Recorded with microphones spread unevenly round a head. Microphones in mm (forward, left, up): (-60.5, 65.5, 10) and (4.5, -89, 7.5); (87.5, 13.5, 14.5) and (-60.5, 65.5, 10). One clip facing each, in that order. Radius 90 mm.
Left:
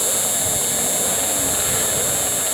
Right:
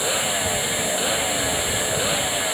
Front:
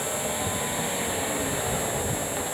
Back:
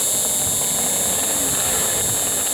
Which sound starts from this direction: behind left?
An insect, at 0.0 s.